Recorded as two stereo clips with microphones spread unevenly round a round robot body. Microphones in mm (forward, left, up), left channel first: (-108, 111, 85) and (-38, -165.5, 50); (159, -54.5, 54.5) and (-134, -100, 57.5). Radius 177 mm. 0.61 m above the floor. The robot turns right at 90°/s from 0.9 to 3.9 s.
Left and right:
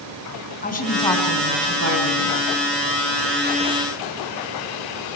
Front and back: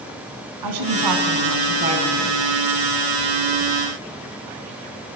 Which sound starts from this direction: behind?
A woman speaking, at 0.6 s.